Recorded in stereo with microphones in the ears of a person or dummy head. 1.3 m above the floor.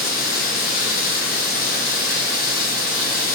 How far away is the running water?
About 0.9 m.